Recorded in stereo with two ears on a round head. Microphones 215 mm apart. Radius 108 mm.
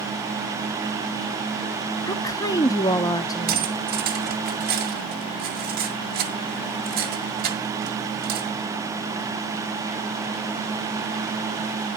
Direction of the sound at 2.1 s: 15° left (ahead or behind).